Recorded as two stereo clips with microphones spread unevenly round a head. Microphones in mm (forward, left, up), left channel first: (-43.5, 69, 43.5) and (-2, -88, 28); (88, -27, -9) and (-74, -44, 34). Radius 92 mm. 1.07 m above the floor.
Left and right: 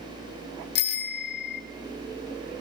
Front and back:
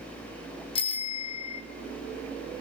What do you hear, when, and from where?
0.8 s a bicycle bell: 70° left, 2.5 m